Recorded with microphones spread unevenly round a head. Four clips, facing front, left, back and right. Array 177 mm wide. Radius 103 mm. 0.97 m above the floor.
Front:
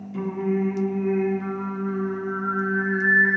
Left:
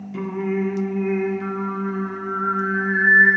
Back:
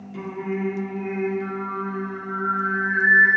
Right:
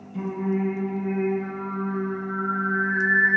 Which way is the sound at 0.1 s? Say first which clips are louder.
Left 2 dB, front 4 dB; 100° left.